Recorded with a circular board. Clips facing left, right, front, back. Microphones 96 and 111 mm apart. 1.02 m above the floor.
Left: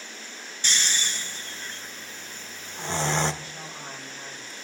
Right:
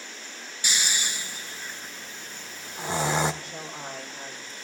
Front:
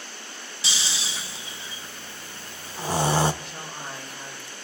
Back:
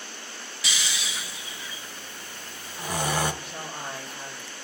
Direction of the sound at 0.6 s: 20° right.